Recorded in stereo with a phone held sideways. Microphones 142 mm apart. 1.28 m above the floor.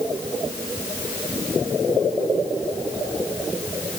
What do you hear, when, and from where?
Only background noise.